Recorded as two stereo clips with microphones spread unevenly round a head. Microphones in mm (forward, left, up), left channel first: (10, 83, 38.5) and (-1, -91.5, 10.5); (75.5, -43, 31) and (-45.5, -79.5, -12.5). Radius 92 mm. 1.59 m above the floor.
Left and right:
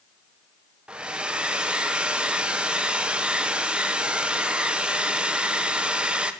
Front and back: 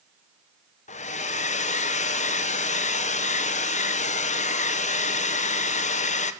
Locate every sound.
0.9 s a hair dryer: 10° right, 1.2 m